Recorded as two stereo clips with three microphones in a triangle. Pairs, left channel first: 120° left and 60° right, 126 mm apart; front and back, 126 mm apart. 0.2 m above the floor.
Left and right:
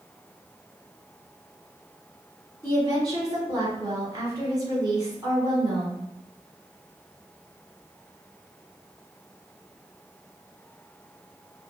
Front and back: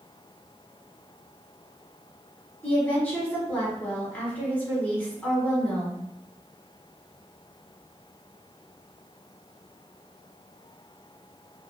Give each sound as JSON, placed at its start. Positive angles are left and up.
{"t": 2.6, "sound": "a woman speaking", "azimuth_deg": -65, "distance_m": 1.3}